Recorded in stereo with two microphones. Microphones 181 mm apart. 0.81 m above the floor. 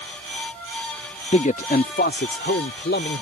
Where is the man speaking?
35° left (ahead or behind); by 3.2 s 75° left (ahead or behind).